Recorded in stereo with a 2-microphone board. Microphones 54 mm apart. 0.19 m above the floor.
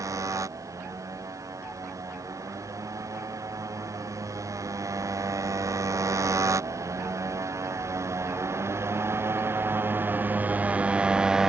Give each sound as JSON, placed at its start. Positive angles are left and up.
{"t": 0.0, "sound": "a motorcycle", "side_deg": -90}